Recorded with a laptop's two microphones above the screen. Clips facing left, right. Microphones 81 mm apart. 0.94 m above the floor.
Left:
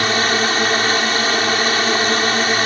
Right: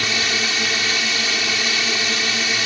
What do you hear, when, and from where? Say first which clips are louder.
0.0 s a drone: left 6 dB; 50° left (ahead or behind)